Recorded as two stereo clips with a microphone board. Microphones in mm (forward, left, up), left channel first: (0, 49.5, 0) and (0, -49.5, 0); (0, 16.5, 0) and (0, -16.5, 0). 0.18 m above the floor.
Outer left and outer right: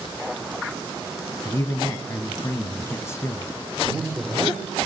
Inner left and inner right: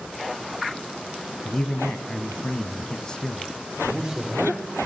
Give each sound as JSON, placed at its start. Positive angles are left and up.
{"t": 1.4, "sound": "a man speaking", "side_deg": 25, "distance_m": 1.6}
{"t": 3.9, "sound": "a man speaking", "side_deg": -10, "distance_m": 5.5}